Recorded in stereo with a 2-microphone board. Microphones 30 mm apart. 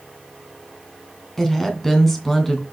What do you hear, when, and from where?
1.4 s a woman speaking: 10° left (ahead or behind), 2.5 m